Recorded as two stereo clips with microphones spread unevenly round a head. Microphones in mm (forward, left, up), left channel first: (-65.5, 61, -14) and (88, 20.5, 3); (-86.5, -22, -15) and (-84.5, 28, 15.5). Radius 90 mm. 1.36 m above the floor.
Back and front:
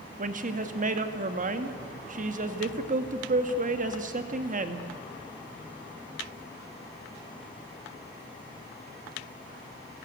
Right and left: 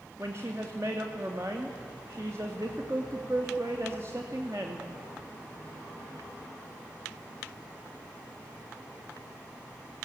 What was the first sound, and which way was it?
A woman speaking, 20° left.